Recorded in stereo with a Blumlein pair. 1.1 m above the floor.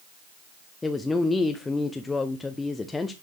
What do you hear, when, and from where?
0.8 s a woman speaking: 10° left, 0.6 m